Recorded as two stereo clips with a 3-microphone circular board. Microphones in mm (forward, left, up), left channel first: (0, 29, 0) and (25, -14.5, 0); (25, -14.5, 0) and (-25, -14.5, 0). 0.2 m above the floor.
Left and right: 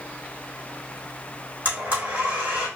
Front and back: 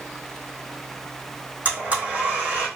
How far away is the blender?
About 3.5 m.